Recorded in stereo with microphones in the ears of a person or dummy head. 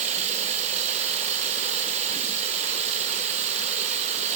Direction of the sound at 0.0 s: 35° right (ahead or behind).